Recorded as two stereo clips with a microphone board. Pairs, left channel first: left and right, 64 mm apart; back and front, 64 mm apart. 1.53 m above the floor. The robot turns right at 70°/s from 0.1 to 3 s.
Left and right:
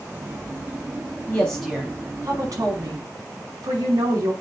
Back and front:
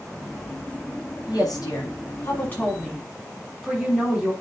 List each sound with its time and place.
1.3 s a woman speaking: 150° left, 5.5 m; by 4.3 s 85° right, 5.5 m